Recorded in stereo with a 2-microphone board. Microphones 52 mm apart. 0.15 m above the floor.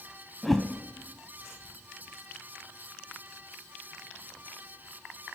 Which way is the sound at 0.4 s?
5° left (ahead or behind).